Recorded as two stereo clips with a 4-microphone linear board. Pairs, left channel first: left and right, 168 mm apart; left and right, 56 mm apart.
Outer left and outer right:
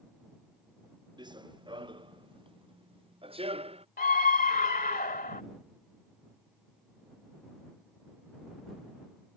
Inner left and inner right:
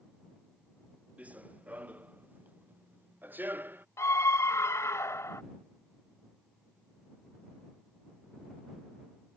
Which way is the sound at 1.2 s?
25° right (ahead or behind).